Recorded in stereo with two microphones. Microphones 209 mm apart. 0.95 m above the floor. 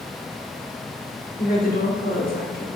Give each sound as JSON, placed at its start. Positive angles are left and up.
{"t": 1.4, "sound": "a woman speaking", "side_deg": 45, "distance_m": 2.5}